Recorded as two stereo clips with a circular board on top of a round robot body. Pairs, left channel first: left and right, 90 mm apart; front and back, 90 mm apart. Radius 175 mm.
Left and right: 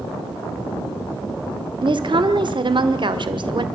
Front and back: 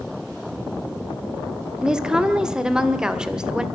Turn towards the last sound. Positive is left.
turn(degrees=-100)